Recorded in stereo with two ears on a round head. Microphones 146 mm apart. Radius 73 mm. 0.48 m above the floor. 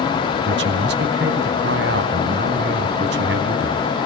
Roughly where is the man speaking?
Right.